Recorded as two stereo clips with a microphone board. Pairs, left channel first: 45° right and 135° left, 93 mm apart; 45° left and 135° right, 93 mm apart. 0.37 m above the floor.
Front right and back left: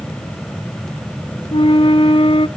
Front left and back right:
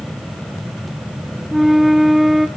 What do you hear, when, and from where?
1.5 s a flute: 45° right, 0.6 m